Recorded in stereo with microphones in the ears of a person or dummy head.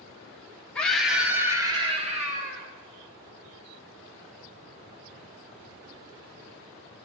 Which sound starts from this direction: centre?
A scream, at 0.8 s.